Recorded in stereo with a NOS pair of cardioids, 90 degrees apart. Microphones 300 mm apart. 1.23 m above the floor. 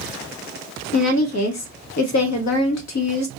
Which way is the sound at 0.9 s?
65° left.